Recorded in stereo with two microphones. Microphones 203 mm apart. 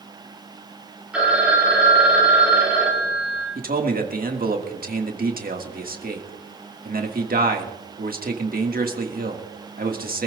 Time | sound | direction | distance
1.1 | a phone ringing | 5° right (ahead or behind) | 4.5 m
3.5 | a man speaking | 45° right (ahead or behind) | 1.6 m